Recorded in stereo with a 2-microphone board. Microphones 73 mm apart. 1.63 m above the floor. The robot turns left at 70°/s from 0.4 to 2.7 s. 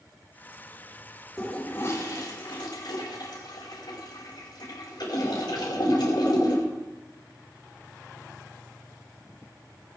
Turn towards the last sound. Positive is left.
turn(degrees=80)